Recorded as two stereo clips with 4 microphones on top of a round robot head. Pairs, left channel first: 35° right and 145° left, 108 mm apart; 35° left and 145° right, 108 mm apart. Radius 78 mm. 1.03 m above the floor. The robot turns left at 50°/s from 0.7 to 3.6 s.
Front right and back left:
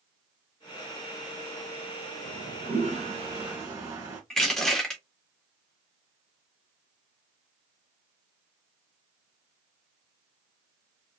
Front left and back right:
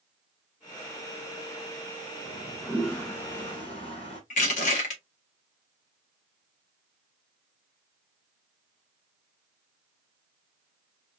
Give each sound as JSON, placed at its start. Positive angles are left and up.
{"t": 2.2, "sound": "a toilet flushing", "azimuth_deg": 150, "distance_m": 1.9}
{"t": 4.3, "sound": "crushing", "azimuth_deg": 50, "distance_m": 1.5}